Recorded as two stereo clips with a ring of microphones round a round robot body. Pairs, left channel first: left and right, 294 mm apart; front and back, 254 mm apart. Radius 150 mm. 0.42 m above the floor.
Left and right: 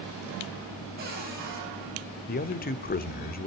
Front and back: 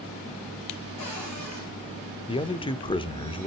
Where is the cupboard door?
30° right, 8.5 m.